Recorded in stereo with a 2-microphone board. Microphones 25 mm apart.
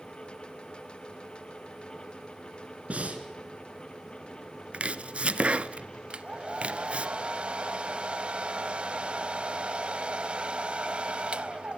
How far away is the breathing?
About 3 m.